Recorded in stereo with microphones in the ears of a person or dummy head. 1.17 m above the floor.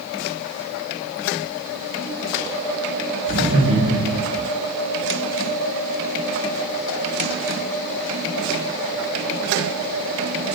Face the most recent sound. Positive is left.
turn(degrees=-70)  # may be behind; listen again after turning